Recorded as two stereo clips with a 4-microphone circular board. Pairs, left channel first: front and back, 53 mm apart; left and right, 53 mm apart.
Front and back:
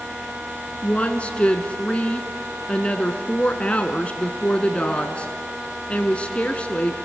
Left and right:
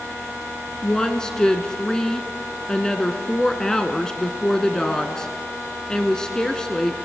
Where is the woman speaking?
30° left, 1.2 m.